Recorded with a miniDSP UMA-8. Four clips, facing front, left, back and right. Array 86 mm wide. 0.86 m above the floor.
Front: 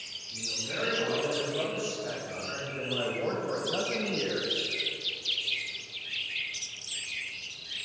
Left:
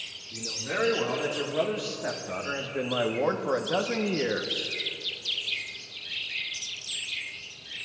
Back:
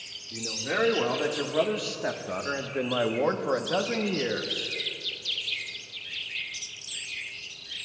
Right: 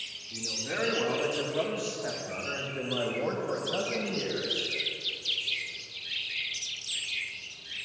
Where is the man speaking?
175° left, 2.5 m; by 4.7 s 105° left, 1.2 m.